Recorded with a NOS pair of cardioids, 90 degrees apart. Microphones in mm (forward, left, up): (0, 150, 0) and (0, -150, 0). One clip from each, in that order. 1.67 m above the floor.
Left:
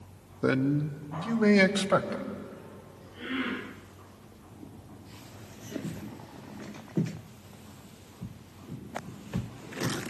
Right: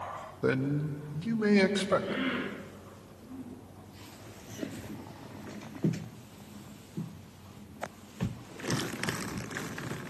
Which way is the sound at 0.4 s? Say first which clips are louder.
Left 3 dB; 15° left.